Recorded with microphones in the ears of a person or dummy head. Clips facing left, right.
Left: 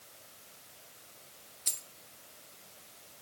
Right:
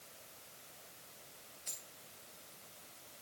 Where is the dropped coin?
60° left (ahead or behind), 1.2 m.